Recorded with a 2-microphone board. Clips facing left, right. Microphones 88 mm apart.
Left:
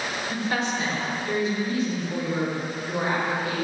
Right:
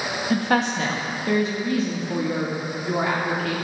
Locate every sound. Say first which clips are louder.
0.3 s a woman speaking: right 7 dB; 55° right (ahead or behind), 2.5 m; by 3.5 s 80° right, 4.5 m